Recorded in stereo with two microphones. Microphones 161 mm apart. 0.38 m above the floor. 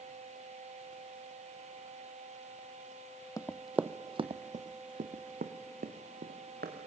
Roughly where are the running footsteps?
Left.